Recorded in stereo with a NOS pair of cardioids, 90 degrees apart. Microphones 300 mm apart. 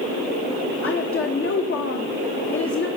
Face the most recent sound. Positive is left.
turn(degrees=45)